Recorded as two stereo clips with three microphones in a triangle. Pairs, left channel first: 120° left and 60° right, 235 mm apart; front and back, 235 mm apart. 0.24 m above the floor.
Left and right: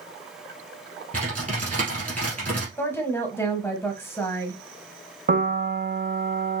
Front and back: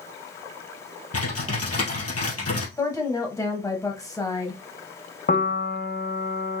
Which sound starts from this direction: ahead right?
A piano, at 5.3 s.